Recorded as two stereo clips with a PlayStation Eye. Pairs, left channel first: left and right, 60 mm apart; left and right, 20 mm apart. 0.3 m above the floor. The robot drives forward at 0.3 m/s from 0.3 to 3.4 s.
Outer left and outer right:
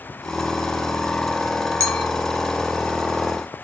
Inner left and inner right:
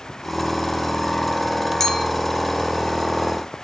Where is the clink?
20° left (ahead or behind), 3.5 m.